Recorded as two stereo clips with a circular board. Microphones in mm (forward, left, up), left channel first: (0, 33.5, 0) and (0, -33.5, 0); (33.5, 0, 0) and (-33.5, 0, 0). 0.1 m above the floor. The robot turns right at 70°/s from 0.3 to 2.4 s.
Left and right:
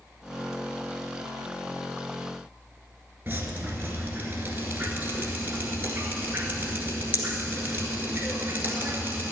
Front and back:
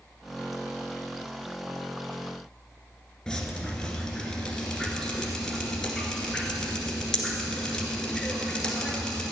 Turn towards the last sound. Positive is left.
turn(degrees=-75)